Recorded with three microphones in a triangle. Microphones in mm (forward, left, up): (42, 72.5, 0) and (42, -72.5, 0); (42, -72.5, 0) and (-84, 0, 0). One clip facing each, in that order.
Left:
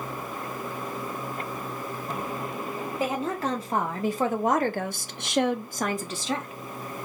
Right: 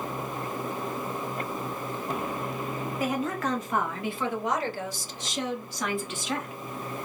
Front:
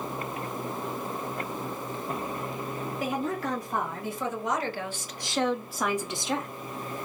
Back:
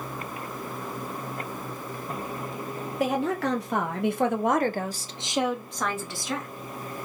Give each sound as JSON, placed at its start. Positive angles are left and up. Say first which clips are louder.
{"t": 3.0, "sound": "a woman speaking", "louder": "left 1 dB, back 6 dB", "azimuth_deg": 150, "distance_m": 1.3}